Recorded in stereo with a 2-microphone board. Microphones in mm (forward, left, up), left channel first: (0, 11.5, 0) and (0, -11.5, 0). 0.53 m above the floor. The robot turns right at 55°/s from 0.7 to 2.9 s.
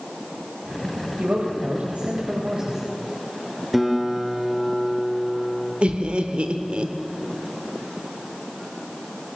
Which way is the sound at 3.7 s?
5° right (ahead or behind).